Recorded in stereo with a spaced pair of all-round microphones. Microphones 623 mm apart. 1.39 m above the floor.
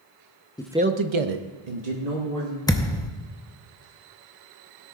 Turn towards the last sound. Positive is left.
turn(degrees=5)  # may be behind; listen again after turning